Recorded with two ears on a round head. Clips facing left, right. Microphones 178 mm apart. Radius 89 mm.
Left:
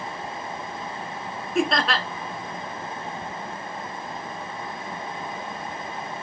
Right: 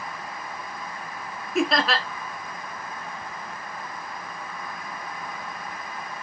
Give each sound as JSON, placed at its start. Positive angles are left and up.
{"t": 1.6, "sound": "laughter", "side_deg": 0, "distance_m": 1.2}